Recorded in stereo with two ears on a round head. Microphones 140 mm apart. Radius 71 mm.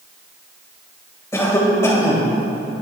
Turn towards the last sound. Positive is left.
turn(degrees=20)  # may be behind; listen again after turning